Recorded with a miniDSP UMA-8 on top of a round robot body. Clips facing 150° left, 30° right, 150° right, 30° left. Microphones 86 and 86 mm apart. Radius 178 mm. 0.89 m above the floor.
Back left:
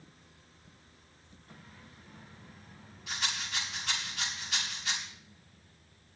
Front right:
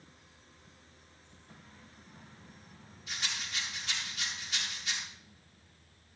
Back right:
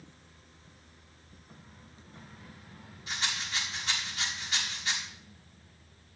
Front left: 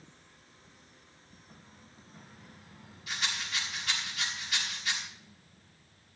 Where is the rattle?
150° left, 5 m.